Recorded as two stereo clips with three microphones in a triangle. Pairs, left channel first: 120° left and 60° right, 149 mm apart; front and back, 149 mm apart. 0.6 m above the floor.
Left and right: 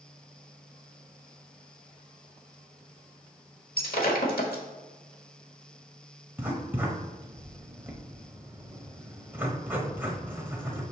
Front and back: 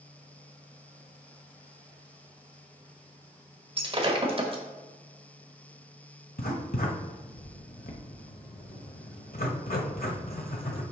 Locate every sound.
3.8 s breaking glass: 125° left, 1.1 m
6.4 s writing: 15° left, 1.1 m